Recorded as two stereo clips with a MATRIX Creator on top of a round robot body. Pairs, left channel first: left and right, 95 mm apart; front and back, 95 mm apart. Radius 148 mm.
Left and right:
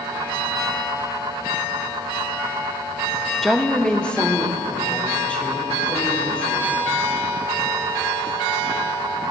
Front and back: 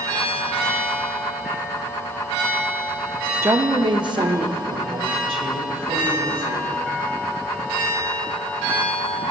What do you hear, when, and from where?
3.4 s a woman speaking: 170° left, 0.8 m; by 6.7 s 165° left, 4 m